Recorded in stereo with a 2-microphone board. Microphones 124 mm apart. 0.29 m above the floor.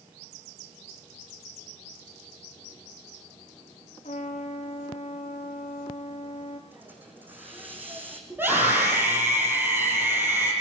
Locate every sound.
4.0 s a trumpet: 65° left (ahead or behind), 4.5 m
6.7 s a hiss: 15° right (ahead or behind), 5.5 m
8.3 s a scream: 15° right (ahead or behind), 9 m